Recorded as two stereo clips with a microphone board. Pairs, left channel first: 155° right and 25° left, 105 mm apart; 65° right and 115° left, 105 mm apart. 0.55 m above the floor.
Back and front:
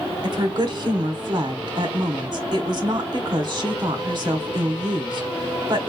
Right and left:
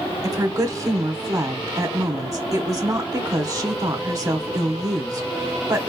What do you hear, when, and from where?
0.2 s a woman speaking: 65° left, 1.2 m